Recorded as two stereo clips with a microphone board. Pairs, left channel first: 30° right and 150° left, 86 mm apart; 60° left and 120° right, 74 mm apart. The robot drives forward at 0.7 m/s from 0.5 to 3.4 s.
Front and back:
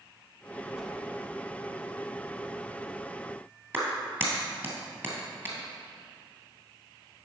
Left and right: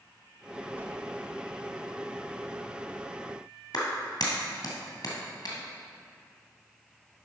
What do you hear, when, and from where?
0.8 s a whoosh: 120° right, 1.0 m; by 0.9 s 130° right, 1.0 m
3.7 s a clap: 85° left, 2 m